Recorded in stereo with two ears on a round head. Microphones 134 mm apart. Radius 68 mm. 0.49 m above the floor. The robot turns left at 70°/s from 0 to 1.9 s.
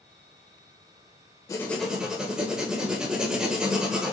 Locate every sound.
1.5 s writing: 20° left (ahead or behind), 0.9 m; by 4.1 s 5° right (ahead or behind), 0.9 m